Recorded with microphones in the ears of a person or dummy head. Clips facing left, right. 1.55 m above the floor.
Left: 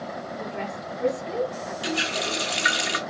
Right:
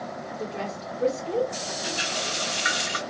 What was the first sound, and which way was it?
A woman speaking, 20° right (ahead or behind).